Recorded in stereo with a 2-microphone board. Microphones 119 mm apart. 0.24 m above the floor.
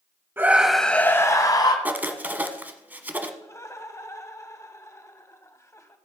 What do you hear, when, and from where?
0.4 s a scream: 20° right (ahead or behind), 1.0 m; by 1.8 s 40° left (ahead or behind), 1.5 m
1.9 s writing: 15° right (ahead or behind), 0.8 m
3.4 s laughter: 25° left (ahead or behind), 1.1 m